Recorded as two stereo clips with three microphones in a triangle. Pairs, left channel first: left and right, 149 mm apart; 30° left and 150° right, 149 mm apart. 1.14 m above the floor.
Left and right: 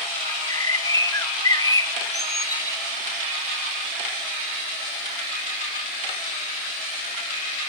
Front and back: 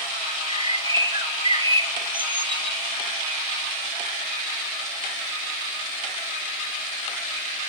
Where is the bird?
155° left, 1.2 m.